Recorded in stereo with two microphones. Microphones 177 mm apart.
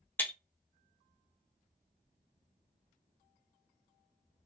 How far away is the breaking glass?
About 0.6 m.